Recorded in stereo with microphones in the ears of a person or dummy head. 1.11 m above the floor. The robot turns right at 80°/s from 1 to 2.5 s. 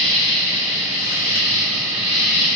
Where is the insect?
110° right, 1.3 m; by 2.6 s 10° left, 1.3 m.